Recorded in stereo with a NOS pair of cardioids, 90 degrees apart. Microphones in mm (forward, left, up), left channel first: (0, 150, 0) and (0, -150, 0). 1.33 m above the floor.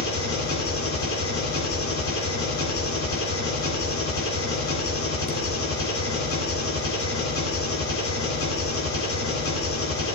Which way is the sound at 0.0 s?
50° left.